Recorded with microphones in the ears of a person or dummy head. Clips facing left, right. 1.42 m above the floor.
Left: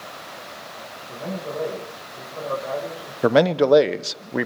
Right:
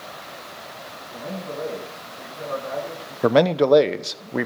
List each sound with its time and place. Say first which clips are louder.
1.1 s a man speaking: left 2 dB; 70° left (ahead or behind), 6 m
3.2 s a man speaking: even; centre (ahead or behind), 0.7 m